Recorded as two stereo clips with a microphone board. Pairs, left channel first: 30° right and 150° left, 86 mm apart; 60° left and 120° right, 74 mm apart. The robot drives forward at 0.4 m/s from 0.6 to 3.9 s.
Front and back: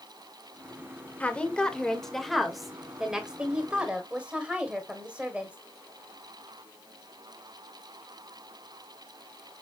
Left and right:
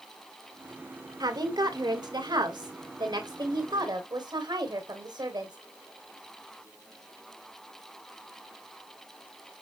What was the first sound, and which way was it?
A woman speaking, 100° right.